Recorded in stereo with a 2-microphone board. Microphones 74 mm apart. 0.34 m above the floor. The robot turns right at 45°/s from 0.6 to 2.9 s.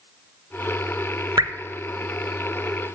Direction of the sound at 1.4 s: 65° right (ahead or behind).